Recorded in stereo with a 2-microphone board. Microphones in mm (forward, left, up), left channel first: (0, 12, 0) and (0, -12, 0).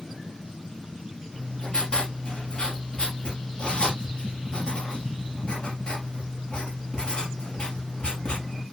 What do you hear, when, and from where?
1.3 s writing: 40° left (ahead or behind), 3.5 m